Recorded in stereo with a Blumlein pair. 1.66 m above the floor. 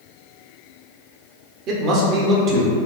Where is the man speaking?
35° right, 0.8 m.